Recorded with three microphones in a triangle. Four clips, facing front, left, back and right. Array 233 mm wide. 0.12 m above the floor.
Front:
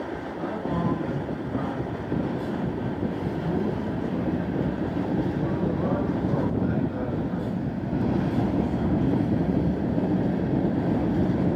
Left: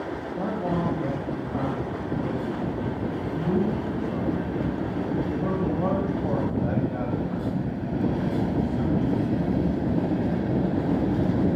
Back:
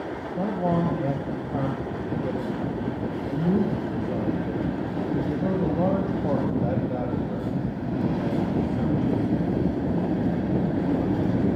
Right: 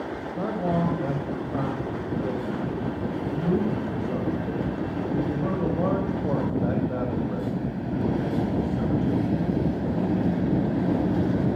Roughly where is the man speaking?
Behind right.